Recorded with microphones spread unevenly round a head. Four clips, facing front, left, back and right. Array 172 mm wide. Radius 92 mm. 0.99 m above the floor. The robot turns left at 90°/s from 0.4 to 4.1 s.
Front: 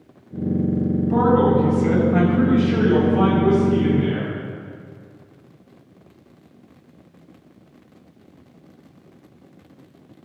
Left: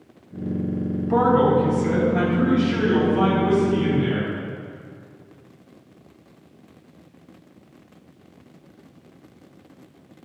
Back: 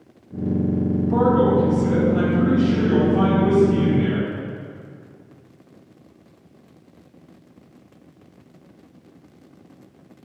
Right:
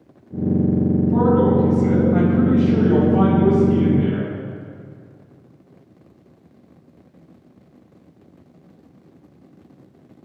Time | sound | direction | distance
1.1 | a man speaking | 90° left | 6 m